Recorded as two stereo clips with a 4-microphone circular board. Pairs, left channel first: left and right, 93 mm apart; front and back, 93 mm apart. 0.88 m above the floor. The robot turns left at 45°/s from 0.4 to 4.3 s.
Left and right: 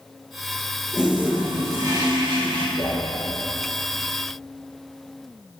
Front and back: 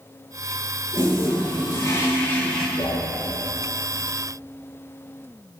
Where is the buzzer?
I don't hear a buzzer.